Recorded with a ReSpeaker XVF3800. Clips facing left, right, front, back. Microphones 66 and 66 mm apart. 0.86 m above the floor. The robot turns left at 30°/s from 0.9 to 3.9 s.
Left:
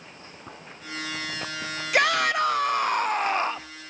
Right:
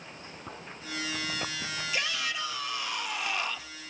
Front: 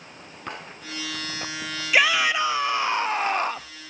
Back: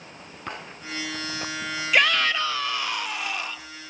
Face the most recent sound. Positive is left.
turn(degrees=25)